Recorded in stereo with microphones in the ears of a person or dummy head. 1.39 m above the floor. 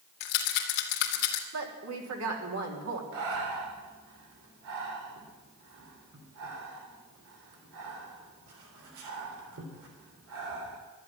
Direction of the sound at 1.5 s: 85° right.